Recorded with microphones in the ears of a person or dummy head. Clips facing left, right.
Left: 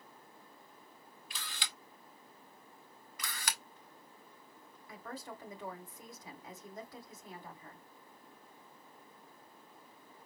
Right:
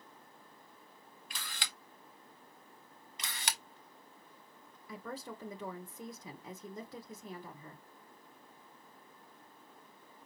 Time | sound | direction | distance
1.3 | a camera shutter | 40° right (ahead or behind) | 1.1 m
3.2 | a camera shutter | 20° right (ahead or behind) | 0.5 m
4.9 | a woman speaking | 85° right | 1.5 m